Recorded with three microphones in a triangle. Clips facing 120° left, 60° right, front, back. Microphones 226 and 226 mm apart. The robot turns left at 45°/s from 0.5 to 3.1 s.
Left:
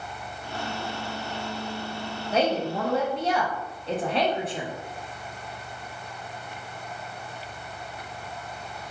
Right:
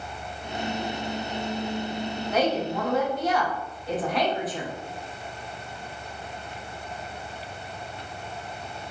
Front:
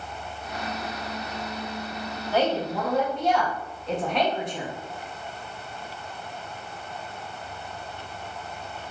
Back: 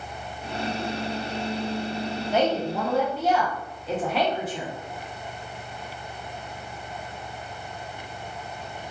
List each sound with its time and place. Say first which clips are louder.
2.3 s a woman speaking: left 1 dB, even; 135° left, 0.7 m; by 4.7 s 100° left, 0.7 m